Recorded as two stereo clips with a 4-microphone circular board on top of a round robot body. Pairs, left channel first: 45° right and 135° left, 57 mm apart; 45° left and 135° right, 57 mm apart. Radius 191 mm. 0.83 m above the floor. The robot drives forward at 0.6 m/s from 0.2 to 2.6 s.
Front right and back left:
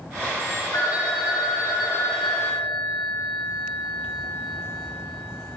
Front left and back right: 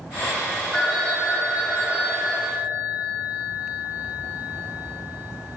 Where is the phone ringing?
40° right, 1.8 m; by 5.6 s 80° right, 1.2 m.